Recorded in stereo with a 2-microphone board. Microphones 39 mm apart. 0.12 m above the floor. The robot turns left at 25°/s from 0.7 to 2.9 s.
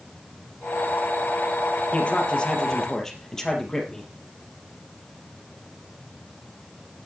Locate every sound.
1.9 s a man speaking: 35° left (ahead or behind), 3.5 m; by 4.1 s 15° left (ahead or behind), 3.5 m